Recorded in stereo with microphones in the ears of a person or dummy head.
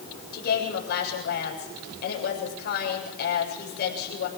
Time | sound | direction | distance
0.3 | a woman speaking | 55° left (ahead or behind) | 7.5 m